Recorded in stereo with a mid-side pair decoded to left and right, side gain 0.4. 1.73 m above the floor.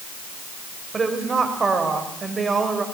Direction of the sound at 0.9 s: 35° right.